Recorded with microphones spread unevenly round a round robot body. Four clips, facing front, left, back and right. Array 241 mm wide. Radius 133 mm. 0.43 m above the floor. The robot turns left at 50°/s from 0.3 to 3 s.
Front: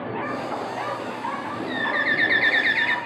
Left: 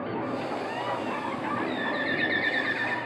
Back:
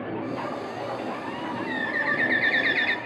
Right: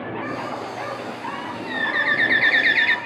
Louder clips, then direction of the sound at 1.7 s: Right 5 dB, front 5 dB; 20° right.